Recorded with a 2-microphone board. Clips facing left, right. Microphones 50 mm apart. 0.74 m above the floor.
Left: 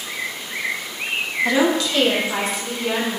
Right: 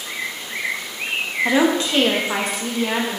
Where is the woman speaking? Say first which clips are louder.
Right 1 dB; 15° right (ahead or behind), 0.6 m; by 3.2 s 60° right (ahead or behind), 1.2 m.